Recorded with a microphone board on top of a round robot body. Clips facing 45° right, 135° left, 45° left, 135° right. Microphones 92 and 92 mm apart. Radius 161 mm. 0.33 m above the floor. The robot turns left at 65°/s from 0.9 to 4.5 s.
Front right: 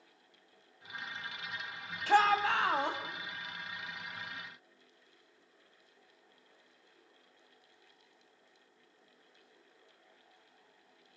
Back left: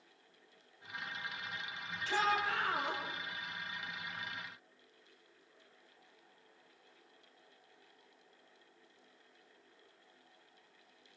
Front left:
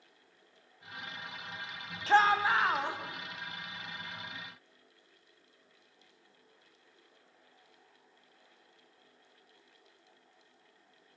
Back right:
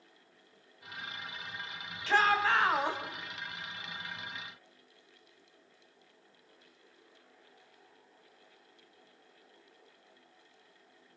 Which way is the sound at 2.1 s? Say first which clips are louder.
Front right 7 dB, front left 2 dB; 5° right.